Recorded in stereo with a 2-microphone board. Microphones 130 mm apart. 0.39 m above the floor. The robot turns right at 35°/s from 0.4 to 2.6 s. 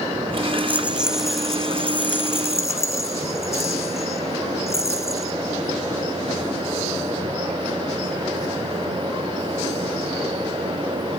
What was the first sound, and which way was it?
A rattle, 25° right.